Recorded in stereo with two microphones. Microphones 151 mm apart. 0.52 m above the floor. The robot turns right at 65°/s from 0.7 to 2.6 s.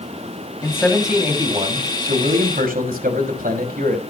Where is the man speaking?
160° left, 3 m; by 4.0 s 75° right, 3 m.